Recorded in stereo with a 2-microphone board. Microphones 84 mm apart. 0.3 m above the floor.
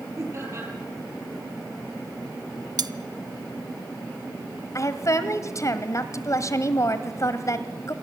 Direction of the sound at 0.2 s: 35° right (ahead or behind).